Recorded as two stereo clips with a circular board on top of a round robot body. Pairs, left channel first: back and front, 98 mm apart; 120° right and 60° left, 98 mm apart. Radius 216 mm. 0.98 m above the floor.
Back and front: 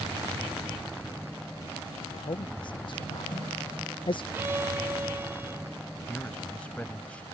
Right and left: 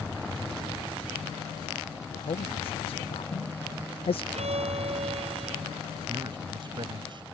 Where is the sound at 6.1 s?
100° left.